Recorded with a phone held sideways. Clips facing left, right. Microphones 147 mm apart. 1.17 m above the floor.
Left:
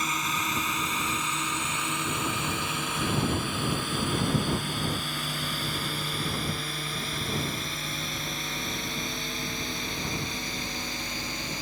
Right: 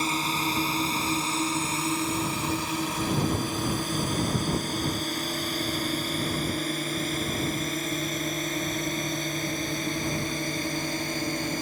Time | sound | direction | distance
0.0 | a drone | 30° right (ahead or behind) | ?